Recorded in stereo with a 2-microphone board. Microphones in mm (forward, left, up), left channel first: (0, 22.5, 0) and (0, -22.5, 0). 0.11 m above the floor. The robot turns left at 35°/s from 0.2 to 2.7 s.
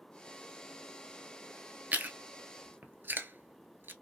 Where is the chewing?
40° right (ahead or behind), 0.6 m; by 3.9 s 50° right (ahead or behind), 0.6 m.